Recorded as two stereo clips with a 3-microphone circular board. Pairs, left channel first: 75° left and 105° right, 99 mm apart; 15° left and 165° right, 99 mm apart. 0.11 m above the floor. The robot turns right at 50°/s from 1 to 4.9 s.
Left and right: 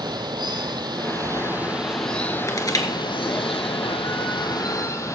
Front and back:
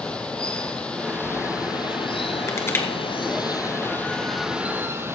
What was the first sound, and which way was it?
Running water, 65° right.